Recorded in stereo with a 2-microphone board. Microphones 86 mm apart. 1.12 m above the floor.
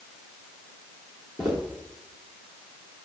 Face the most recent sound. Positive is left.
turn(degrees=-5)  # may be behind; listen again after turning